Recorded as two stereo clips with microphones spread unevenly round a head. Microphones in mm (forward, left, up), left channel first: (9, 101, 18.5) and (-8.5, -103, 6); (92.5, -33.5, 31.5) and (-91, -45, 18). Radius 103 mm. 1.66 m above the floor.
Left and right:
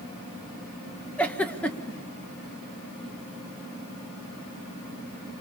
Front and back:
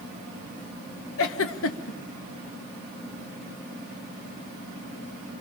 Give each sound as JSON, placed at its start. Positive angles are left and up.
{"t": 1.2, "sound": "a giggle", "azimuth_deg": 0, "distance_m": 1.4}